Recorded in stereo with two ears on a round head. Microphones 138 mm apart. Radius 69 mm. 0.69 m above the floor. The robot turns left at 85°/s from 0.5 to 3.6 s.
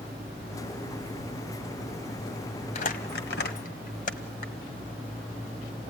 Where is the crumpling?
50° left (ahead or behind), 1.7 m; by 4.5 s 60° left (ahead or behind), 1.7 m.